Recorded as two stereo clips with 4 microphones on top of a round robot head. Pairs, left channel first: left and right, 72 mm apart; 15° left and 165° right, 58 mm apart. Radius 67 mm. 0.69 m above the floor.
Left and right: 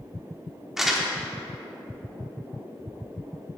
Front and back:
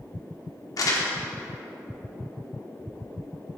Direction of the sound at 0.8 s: 5° right.